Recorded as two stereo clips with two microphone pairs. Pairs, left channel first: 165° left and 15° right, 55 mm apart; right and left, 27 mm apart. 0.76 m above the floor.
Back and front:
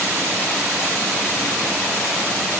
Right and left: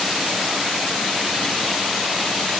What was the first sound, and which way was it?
Only background noise.